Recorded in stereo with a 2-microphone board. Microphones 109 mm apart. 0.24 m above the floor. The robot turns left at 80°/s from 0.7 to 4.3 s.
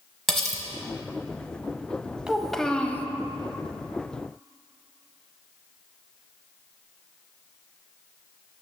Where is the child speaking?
5° right (ahead or behind), 0.5 m; by 3.0 s 20° left (ahead or behind), 0.5 m.